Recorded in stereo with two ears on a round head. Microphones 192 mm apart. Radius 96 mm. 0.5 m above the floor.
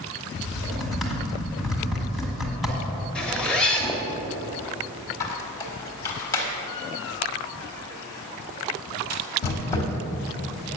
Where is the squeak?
15° left (ahead or behind), 1.4 m.